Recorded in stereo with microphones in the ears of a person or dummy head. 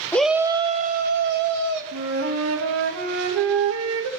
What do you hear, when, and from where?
0.1 s a shout: 10° left (ahead or behind), 0.8 m; by 1.8 s 60° right (ahead or behind), 2 m
1.9 s a flute: 80° right, 2 m